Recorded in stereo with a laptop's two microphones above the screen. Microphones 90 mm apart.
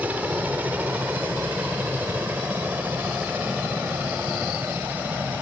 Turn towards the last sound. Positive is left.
turn(degrees=-20)  # may be behind; listen again after turning